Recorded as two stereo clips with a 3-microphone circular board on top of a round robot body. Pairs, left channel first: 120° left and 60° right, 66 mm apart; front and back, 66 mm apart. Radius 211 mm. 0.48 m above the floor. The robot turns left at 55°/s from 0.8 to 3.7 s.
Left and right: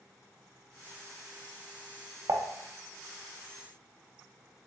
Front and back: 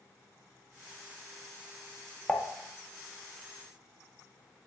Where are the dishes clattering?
80° right, 0.7 m; by 2.4 s 85° right, 0.7 m.